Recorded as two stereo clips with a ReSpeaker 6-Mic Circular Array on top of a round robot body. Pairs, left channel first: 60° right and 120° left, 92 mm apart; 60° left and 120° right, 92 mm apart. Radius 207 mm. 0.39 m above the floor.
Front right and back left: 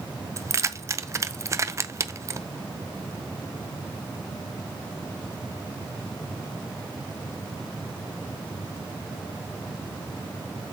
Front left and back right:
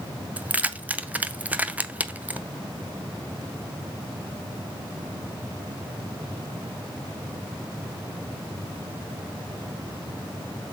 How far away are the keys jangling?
About 0.6 m.